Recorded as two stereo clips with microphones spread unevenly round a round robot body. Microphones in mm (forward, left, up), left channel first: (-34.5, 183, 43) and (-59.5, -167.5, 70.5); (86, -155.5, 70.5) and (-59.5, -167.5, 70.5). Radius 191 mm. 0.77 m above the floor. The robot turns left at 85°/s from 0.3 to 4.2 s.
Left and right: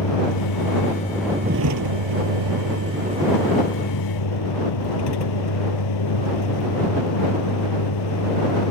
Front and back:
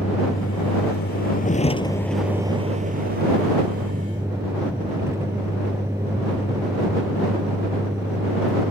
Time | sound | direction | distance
0.0 | a vehicle | 75° left | ?